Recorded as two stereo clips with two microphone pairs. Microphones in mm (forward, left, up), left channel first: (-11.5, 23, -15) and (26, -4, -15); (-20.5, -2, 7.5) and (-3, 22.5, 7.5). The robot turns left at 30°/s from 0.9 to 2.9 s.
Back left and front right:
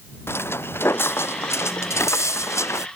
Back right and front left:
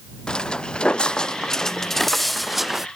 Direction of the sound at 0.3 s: 175° left.